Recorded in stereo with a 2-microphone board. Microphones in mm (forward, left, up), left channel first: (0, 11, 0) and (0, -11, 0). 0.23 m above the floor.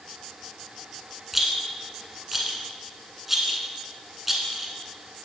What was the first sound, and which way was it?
A rattle, 10° right (ahead or behind).